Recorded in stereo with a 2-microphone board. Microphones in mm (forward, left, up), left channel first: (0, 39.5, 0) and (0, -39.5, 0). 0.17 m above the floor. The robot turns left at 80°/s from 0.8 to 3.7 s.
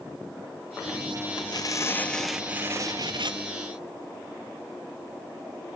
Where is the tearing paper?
75° left, 0.6 m; by 3.4 s 90° right, 0.6 m.